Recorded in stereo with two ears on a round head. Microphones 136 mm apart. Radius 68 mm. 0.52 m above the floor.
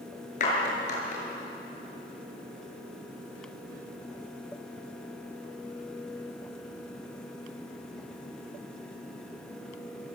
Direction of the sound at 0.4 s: 50° left (ahead or behind).